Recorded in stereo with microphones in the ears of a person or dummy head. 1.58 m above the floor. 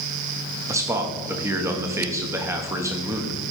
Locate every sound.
0.7 s a man speaking: 20° right (ahead or behind), 1.0 m